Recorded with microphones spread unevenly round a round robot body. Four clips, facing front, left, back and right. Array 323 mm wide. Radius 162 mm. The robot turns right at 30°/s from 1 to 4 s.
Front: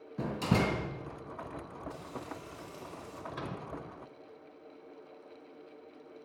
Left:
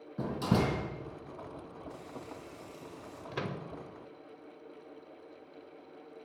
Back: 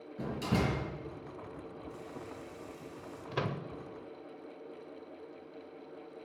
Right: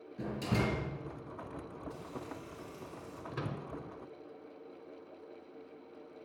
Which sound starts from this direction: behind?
A microwave, at 3.3 s.